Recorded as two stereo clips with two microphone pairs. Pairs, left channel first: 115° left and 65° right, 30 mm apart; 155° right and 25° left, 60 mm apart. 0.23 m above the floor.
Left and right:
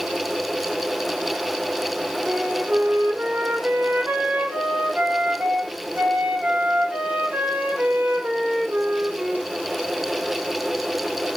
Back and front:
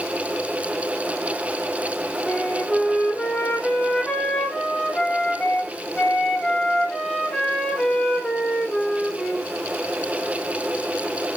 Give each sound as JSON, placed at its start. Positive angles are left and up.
{"t": 2.3, "sound": "a flute", "azimuth_deg": -80, "distance_m": 2.0}